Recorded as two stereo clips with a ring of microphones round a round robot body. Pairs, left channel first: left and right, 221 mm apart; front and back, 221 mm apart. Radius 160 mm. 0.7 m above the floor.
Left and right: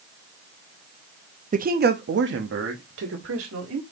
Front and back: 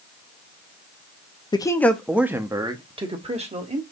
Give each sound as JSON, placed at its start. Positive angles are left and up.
{"t": 1.5, "sound": "a man speaking", "azimuth_deg": -60, "distance_m": 0.7}